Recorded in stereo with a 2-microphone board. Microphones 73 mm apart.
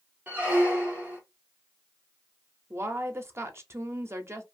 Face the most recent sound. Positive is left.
turn(degrees=-35)  # may be behind; listen again after turning